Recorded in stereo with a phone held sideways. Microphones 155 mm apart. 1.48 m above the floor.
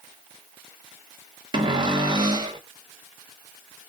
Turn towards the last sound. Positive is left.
turn(degrees=-30)  # may be behind; listen again after turning